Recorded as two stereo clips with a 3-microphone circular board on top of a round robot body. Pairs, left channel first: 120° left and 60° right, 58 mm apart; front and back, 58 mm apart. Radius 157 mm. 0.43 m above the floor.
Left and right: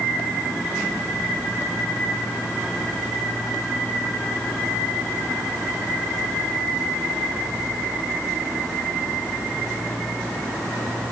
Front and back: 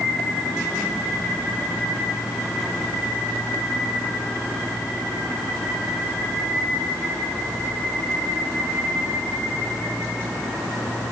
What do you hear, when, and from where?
Only background noise.